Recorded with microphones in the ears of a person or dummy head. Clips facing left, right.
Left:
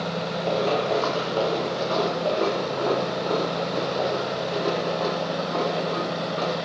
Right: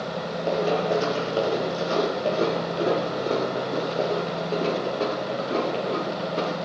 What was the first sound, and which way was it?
Running footsteps, 15° right (ahead or behind).